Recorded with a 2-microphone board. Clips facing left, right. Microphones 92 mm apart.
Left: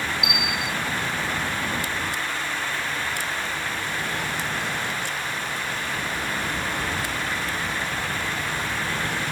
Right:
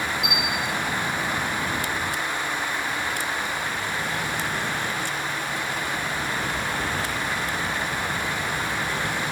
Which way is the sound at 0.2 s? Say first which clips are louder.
Right 1 dB; 5° left (ahead or behind).